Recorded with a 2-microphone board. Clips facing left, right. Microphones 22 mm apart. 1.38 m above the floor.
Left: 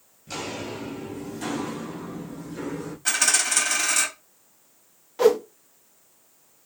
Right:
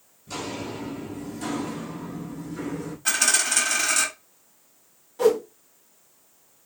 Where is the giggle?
No giggle in this recording.